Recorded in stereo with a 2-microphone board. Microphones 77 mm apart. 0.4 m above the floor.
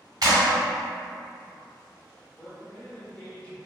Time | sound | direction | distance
0.2 | a clap | 55° right (ahead or behind) | 1.3 m
2.4 | a man speaking | 15° left (ahead or behind) | 0.9 m